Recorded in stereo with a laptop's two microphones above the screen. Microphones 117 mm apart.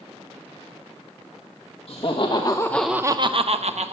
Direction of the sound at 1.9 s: 55° left (ahead or behind).